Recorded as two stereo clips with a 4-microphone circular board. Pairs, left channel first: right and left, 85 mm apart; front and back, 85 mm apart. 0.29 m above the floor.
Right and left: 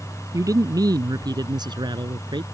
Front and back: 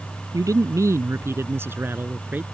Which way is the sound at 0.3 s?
135° left.